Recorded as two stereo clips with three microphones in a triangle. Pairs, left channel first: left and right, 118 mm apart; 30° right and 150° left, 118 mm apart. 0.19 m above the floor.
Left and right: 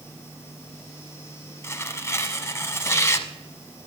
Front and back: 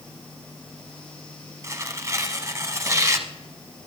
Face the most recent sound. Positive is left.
turn(degrees=125)